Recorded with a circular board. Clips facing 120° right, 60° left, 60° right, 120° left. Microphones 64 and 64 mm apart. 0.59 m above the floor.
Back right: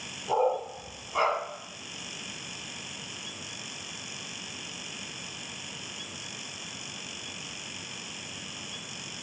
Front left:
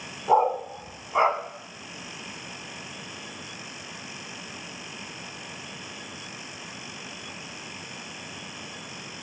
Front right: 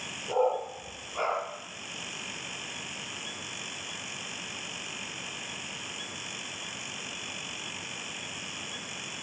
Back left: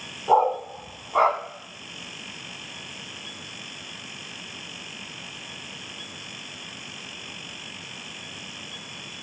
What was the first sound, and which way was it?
A dog barking, 105° left.